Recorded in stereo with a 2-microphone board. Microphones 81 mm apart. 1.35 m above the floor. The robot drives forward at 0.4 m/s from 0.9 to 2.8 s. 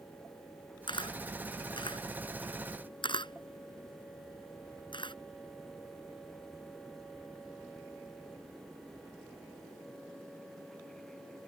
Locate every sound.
0.9 s a camera shutter: 75° left (ahead or behind); by 5.2 s 80° left